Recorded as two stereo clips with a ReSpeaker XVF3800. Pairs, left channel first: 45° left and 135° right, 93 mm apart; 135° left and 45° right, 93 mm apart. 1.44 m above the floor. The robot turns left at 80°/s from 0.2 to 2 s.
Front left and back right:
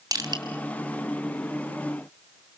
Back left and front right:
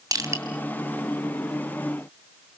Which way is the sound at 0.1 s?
90° right.